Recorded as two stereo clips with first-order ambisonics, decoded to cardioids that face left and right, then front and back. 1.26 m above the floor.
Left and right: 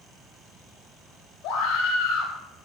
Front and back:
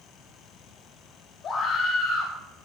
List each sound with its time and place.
1.4 s a scream: 60° left, 7 m